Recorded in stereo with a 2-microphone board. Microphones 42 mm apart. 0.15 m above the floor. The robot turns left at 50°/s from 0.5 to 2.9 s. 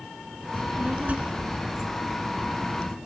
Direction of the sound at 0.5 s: 95° right.